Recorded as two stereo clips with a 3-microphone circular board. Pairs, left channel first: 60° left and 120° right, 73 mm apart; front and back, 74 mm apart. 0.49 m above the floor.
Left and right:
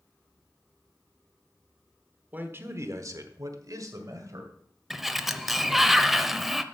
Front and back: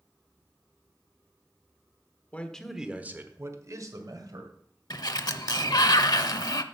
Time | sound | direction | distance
2.3 | a man speaking | 65° right | 1.2 m
4.9 | a sliding door | 30° right | 0.6 m